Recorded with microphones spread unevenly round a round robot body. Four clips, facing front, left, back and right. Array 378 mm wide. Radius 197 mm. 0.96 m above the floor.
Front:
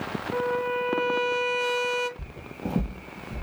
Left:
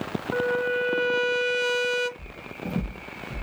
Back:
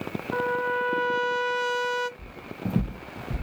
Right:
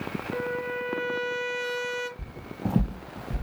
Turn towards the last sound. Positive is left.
turn(degrees=-150)